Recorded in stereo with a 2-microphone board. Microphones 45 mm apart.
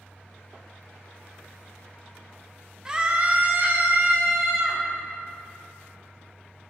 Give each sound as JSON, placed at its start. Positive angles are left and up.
{"t": 2.9, "sound": "a scream", "side_deg": -15, "distance_m": 0.7}